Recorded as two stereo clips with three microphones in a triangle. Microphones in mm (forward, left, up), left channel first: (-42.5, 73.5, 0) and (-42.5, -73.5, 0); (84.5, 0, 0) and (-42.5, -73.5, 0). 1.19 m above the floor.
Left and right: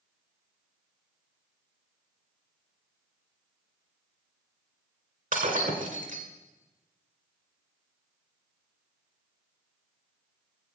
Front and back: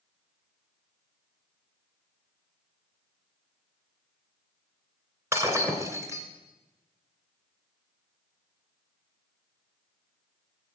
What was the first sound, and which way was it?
Breaking glass, 80° right.